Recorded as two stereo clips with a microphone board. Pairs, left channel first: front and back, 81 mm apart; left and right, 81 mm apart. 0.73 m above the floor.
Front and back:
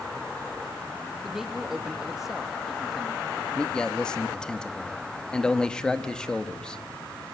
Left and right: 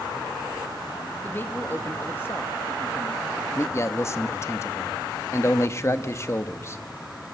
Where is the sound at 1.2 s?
95° left, 1.2 m.